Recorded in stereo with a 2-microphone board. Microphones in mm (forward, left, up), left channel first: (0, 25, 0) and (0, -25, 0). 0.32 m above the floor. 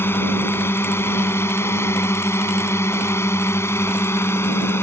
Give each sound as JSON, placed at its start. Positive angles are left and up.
{"t": 0.0, "sound": "a drone", "side_deg": 55}